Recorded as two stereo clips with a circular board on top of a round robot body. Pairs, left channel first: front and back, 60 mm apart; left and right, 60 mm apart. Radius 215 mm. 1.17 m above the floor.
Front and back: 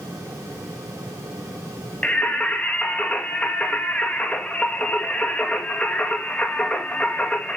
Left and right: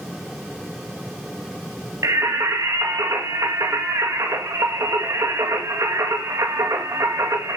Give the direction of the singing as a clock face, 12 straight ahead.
2 o'clock.